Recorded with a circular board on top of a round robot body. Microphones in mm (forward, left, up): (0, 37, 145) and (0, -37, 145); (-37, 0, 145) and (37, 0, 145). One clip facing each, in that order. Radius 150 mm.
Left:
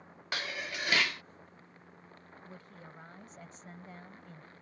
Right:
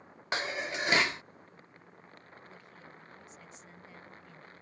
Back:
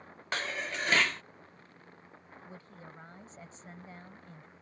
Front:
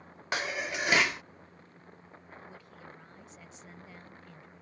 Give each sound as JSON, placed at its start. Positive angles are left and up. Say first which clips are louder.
{"t": 0.3, "sound": "dishes clattering", "louder": "right 4 dB, front 2 dB", "azimuth_deg": -65}
{"t": 2.5, "sound": "a woman speaking", "louder": "left 1 dB, even", "azimuth_deg": 130}